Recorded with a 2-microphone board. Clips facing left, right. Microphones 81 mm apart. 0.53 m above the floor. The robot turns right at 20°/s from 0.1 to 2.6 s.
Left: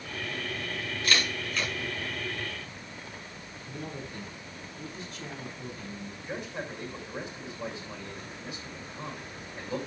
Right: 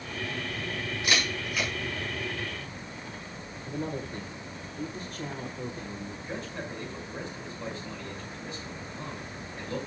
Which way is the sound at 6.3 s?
10° left (ahead or behind).